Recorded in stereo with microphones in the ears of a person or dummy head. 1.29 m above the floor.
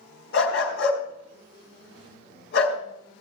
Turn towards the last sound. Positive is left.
turn(degrees=55)  # may be behind; listen again after turning